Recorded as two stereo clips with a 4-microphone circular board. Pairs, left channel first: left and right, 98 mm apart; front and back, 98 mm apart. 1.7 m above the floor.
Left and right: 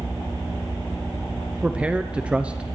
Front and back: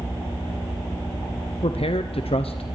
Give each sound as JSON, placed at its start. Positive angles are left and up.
{"t": 1.6, "sound": "a man speaking", "azimuth_deg": -15, "distance_m": 0.9}